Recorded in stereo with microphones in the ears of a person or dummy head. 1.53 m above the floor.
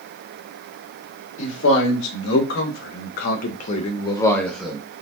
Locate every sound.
1.4 s a man speaking: 80° left, 1.8 m; by 4.8 s 5° right (ahead or behind), 0.9 m